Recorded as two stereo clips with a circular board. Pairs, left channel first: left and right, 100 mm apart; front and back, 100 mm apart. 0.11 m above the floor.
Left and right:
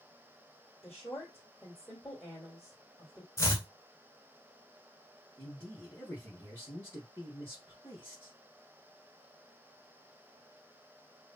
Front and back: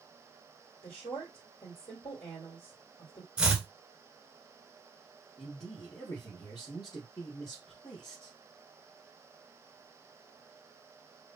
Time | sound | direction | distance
0.8 | a woman speaking | 15° left | 3 m
3.4 | chopping | 105° left | 1.3 m
5.4 | a man speaking | 30° left | 2.5 m